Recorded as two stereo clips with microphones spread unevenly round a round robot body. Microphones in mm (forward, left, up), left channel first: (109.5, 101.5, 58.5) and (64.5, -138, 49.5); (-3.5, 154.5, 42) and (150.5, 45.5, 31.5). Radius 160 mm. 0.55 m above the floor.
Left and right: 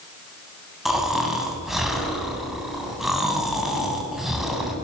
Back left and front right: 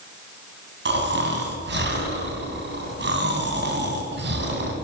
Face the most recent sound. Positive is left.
turn(degrees=-10)